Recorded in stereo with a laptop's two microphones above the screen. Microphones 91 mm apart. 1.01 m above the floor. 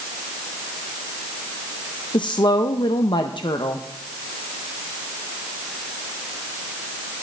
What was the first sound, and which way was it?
A woman speaking, 60° left (ahead or behind).